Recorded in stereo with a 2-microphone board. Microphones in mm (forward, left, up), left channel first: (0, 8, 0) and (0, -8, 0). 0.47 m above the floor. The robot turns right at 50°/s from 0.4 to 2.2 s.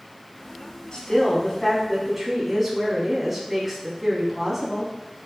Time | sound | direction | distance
0.9 | a woman speaking | 130° left | 3.5 m